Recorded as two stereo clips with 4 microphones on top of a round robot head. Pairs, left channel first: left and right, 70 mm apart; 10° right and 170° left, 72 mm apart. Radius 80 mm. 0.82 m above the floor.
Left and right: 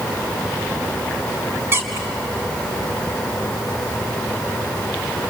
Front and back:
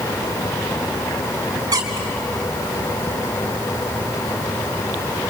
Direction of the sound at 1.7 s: 145° right.